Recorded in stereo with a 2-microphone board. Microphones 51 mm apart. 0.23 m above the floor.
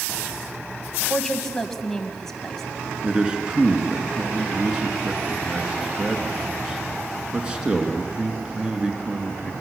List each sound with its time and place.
1.1 s a woman speaking: 10° left (ahead or behind), 1.3 m
3.0 s a man speaking: 20° right (ahead or behind), 2.5 m